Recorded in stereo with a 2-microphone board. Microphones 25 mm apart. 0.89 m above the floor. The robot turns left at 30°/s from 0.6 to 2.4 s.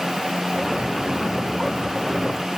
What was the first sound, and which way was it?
Only background noise.